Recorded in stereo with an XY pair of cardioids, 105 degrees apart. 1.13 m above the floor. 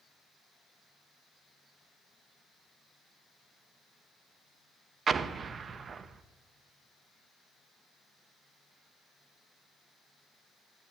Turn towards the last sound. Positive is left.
turn(degrees=-40)